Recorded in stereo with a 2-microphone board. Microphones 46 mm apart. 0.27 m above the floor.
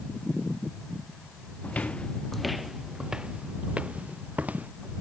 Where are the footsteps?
35° left (ahead or behind); by 4.7 s 35° right (ahead or behind).